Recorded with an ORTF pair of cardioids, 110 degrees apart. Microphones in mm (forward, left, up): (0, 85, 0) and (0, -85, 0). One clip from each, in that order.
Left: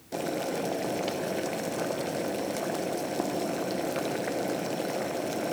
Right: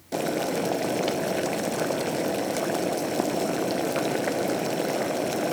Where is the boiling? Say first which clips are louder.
Right 4 dB; 25° right, 1.4 m.